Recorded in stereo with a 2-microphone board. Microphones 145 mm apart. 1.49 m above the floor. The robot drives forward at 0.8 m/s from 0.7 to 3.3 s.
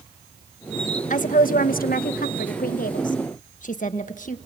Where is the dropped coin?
No dropped coin in this recording.